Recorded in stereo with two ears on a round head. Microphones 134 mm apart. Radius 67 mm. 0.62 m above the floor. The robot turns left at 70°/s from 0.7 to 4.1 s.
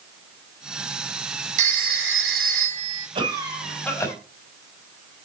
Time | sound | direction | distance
1.6 | a phone ringing | 50° right | 3 m
3.1 | a cough | 140° right | 3.5 m